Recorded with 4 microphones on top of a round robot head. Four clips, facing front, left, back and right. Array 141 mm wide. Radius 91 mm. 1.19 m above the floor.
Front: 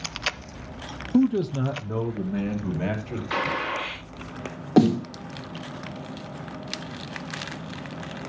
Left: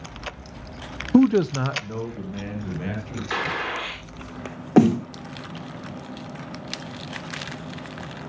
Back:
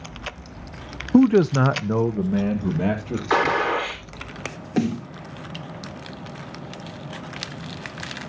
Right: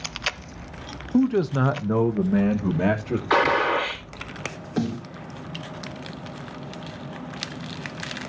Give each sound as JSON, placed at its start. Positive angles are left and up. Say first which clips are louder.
{"t": 1.1, "sound": "a man speaking", "louder": "left 3 dB, back 6 dB", "azimuth_deg": 130, "distance_m": 0.5}
{"t": 3.3, "sound": "a gunshot", "louder": "right 8 dB, back 8 dB", "azimuth_deg": -145, "distance_m": 4.0}
{"t": 4.8, "sound": "a snare drum", "louder": "left 11 dB, front 5 dB", "azimuth_deg": 60, "distance_m": 0.7}